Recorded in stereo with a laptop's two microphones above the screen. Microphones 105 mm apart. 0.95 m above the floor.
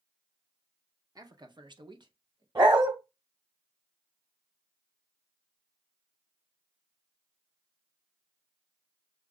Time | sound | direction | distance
1.1 | a man speaking | 35° right (ahead or behind) | 0.8 m
2.5 | a dog barking | 45° right (ahead or behind) | 1.8 m